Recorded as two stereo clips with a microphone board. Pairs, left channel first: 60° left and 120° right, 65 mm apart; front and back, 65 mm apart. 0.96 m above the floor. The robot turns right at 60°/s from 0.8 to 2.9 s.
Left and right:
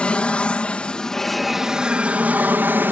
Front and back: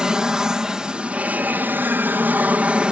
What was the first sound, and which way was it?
An aircraft, 110° left.